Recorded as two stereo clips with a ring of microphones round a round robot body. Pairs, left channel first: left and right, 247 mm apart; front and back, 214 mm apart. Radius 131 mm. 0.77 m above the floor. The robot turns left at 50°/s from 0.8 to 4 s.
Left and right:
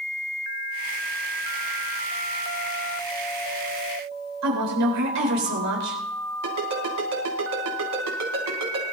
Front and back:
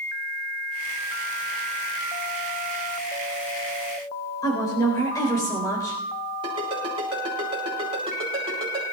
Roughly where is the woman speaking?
Right.